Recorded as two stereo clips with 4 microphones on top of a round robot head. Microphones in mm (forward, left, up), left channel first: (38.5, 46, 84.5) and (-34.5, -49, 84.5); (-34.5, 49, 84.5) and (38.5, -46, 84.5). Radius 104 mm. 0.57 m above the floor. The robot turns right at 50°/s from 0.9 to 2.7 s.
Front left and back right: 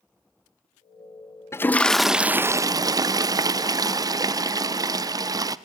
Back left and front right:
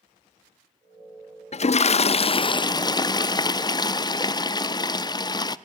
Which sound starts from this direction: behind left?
A toilet flushing, at 1.5 s.